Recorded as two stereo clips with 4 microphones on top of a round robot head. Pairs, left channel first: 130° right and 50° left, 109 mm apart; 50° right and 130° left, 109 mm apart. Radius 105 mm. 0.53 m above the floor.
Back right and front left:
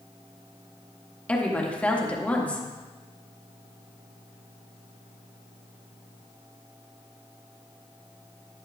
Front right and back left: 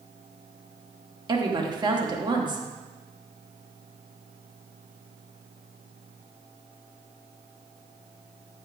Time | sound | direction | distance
1.3 | a woman speaking | 155° left | 1.5 m